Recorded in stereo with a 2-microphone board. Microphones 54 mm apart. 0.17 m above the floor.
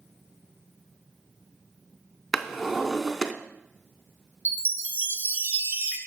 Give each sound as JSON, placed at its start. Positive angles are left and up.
{"t": 2.3, "sound": "a drawer", "side_deg": -5, "distance_m": 0.5}
{"t": 4.5, "sound": "a chime", "side_deg": -40, "distance_m": 1.1}